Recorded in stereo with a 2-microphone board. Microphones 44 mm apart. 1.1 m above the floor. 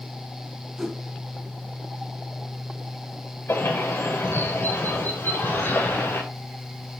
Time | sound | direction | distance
0.8 | a whoosh | 5° right (ahead or behind) | 3.5 m
3.5 | a bird | 75° left (ahead or behind) | 6 m